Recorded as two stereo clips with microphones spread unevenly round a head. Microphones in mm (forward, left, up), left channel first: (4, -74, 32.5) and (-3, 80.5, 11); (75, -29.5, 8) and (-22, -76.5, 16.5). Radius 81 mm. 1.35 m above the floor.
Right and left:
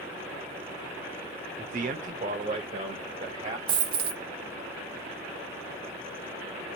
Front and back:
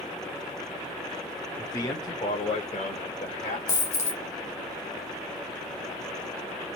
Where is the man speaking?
90° left, 0.7 m; by 3.6 s 40° left, 1.4 m.